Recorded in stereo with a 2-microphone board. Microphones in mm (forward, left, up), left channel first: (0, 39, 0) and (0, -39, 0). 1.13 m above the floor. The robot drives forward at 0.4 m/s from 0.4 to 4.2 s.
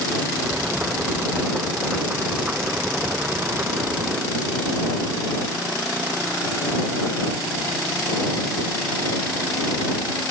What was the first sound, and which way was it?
Only background noise.